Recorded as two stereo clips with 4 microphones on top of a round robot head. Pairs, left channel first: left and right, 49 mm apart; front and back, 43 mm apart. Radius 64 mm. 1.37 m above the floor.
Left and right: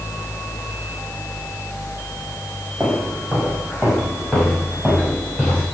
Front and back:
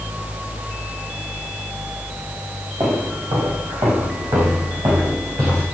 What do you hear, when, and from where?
2.8 s footsteps: 175° right, 5 m; by 5.6 s 170° left, 6.5 m